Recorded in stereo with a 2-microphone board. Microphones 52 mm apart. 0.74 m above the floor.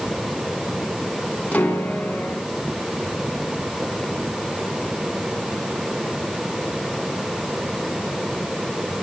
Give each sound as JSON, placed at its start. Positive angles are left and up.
{"t": 1.5, "sound": "a piano", "side_deg": 30, "distance_m": 1.9}